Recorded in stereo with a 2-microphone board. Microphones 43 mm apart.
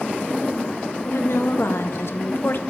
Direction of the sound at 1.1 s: 80° left.